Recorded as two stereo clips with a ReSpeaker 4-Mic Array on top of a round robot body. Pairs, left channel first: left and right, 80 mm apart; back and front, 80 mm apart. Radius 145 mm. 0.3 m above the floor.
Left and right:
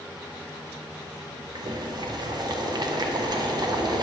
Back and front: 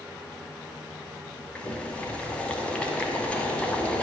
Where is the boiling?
105° right, 0.8 m.